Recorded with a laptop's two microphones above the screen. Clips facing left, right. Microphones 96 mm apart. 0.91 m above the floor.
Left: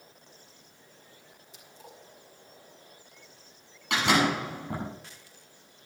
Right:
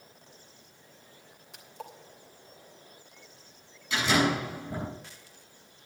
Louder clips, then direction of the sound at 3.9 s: Left 1 dB; 65° left (ahead or behind).